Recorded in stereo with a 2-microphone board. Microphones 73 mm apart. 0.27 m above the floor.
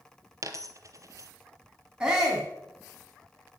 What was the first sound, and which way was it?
A dropped coin, 45° right (ahead or behind).